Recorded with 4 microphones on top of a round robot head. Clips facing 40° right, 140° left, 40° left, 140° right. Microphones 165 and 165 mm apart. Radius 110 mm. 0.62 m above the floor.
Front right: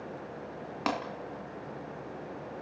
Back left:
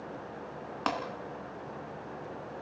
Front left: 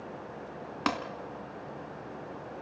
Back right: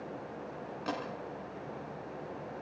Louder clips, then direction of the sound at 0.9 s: Front right 1 dB, front left 5 dB; 45° left.